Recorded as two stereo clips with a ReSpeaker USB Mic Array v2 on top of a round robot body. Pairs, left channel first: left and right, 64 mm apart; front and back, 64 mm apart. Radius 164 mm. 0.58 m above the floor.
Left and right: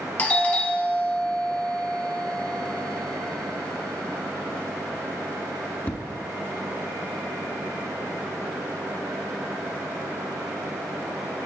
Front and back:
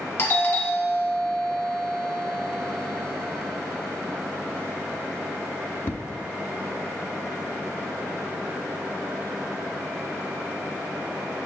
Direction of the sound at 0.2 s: 45° left.